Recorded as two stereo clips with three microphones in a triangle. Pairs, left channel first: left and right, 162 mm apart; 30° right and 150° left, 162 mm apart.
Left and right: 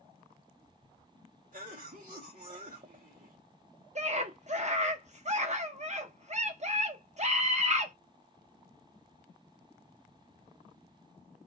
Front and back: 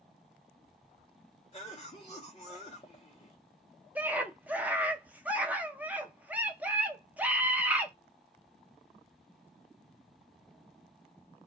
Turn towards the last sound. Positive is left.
turn(degrees=-130)